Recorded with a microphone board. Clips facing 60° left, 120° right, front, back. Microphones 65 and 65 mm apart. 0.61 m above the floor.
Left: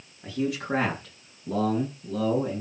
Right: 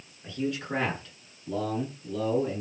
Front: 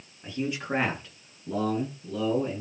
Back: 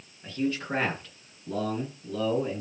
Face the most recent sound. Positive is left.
turn(degrees=85)